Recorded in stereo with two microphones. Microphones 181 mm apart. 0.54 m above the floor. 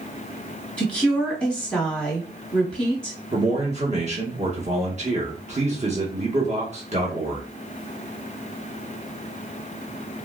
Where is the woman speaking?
Centre (ahead or behind), 1.2 m.